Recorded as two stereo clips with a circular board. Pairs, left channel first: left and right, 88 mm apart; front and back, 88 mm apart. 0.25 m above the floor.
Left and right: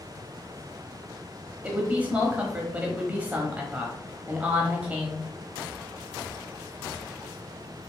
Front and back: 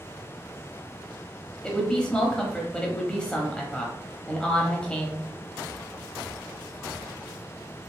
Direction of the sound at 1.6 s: 60° right.